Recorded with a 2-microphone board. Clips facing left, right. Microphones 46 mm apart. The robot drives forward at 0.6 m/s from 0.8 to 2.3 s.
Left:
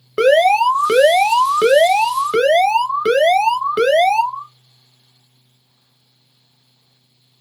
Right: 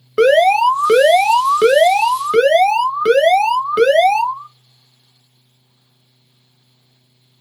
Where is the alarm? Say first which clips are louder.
Right 1 dB; centre (ahead or behind), 0.7 m.